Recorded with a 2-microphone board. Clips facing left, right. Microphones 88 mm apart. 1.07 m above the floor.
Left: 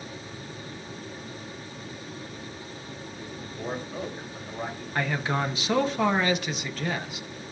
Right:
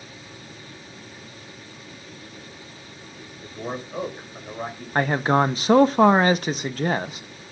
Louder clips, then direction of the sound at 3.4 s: Right 3 dB; 20° right (ahead or behind).